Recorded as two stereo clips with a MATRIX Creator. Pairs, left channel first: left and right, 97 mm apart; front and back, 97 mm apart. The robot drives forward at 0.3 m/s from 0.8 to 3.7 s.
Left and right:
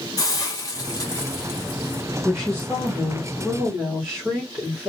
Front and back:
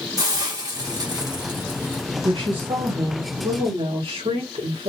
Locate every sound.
0.2 s a hiss: 135° left, 1.5 m; by 2.0 s 145° left, 1.8 m
2.2 s a woman speaking: straight behind, 1.6 m